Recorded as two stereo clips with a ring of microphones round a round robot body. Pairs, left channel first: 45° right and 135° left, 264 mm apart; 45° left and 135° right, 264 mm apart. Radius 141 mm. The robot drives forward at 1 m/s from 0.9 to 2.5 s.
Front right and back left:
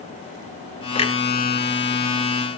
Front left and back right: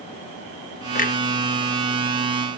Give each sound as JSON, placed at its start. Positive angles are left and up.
{"t": 0.9, "sound": "a clunk", "azimuth_deg": 10, "distance_m": 1.3}